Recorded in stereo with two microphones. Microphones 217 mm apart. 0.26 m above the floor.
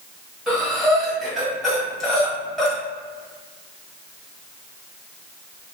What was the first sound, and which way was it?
Breathing, centre (ahead or behind).